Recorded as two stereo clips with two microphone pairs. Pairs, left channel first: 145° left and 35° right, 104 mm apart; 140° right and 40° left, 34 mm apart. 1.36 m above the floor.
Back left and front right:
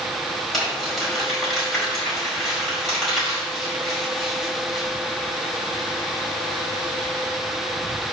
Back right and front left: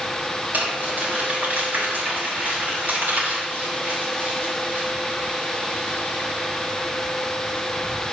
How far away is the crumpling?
About 4.5 m.